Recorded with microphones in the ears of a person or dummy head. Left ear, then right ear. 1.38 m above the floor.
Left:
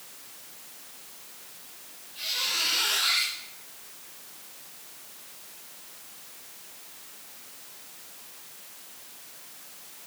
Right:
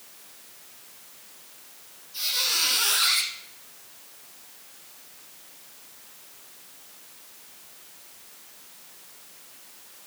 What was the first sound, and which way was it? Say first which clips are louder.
A squeak: right 3 dB; 70° right (ahead or behind).